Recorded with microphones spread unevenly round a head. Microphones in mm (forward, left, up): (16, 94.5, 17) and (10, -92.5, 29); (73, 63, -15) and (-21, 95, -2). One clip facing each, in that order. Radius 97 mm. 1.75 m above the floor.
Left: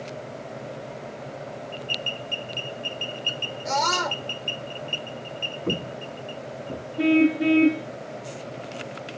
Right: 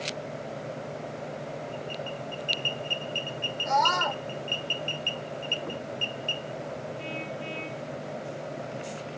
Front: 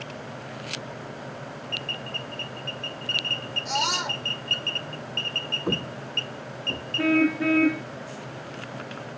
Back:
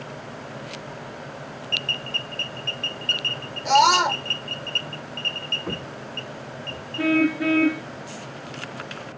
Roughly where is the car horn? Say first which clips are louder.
Left 17 dB, back 1 dB; left.